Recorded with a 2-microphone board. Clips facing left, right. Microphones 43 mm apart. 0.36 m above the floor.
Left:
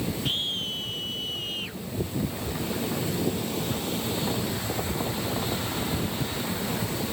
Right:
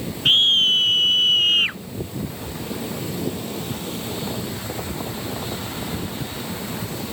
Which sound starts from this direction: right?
A scream, at 0.2 s.